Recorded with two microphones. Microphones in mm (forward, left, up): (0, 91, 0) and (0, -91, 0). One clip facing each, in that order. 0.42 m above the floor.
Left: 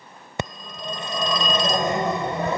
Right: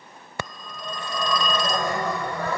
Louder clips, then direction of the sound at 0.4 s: Left 4 dB; 20° left (ahead or behind).